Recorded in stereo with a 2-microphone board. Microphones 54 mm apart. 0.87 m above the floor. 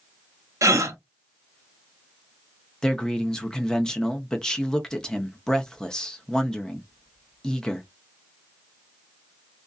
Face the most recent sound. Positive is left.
turn(degrees=10)  # may be behind; listen again after turning